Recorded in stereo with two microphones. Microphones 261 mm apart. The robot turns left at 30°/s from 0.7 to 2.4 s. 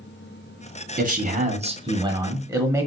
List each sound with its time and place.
1.0 s a man speaking: 115° right, 0.7 m; by 2.9 s 160° right, 0.7 m